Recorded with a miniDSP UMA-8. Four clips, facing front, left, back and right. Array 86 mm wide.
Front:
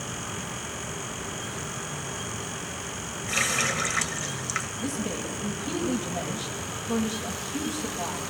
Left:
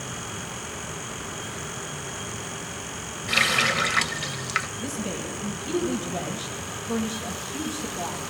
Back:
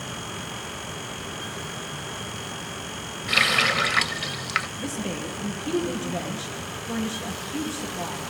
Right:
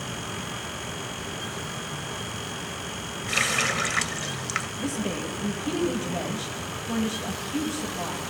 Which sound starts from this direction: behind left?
A running tap, at 3.3 s.